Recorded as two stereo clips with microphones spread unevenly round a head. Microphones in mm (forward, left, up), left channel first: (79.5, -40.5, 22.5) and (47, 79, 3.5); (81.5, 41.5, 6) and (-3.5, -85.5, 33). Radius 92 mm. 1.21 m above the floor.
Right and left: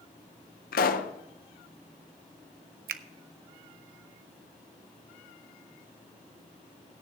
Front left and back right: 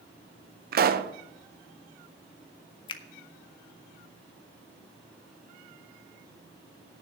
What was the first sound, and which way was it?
A pop, 95° right.